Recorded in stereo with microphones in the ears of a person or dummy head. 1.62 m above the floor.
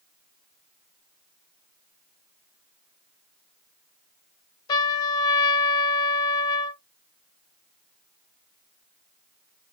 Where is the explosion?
I don't hear an explosion.